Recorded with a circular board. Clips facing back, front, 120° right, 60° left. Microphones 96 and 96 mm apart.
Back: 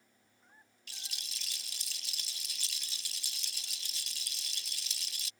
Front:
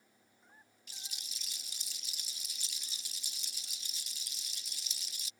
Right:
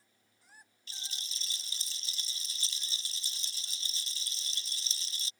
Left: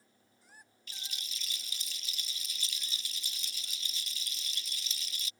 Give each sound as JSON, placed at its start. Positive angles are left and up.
{"t": 0.9, "sound": "a rattle", "azimuth_deg": -175}